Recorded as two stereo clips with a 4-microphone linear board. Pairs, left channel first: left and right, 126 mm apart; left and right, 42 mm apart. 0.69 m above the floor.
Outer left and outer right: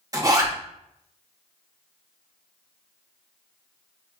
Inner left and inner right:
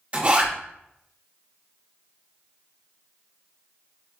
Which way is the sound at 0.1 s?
30° right (ahead or behind).